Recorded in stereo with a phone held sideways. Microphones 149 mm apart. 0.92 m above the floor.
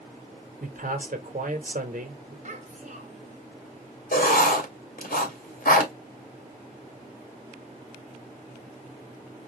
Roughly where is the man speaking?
Right.